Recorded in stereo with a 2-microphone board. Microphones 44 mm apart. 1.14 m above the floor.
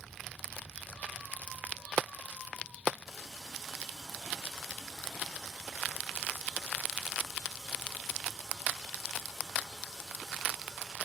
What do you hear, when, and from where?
3.1 s a running tap: 5° left (ahead or behind), 2.5 m